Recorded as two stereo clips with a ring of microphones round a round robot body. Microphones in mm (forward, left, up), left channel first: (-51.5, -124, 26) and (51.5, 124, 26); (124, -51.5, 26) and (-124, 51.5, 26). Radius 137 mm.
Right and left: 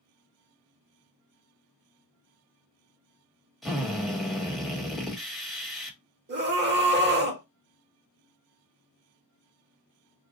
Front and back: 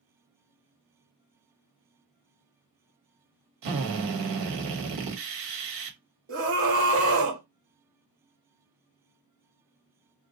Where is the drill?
155° left, 1.2 m.